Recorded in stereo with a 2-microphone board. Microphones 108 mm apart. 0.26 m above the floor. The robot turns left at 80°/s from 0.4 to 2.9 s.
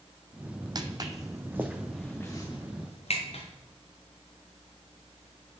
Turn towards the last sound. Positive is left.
turn(degrees=60)  # may be behind; listen again after turning